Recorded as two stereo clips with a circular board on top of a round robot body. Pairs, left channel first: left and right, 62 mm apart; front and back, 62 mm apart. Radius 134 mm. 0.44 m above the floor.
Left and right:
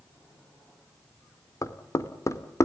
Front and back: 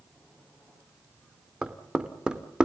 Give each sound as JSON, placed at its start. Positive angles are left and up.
{"t": 1.6, "sound": "knocking", "azimuth_deg": 105, "distance_m": 1.7}